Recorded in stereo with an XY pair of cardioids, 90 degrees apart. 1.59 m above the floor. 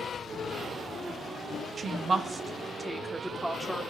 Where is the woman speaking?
55° right, 0.9 m; by 3.8 s 15° right, 2.0 m.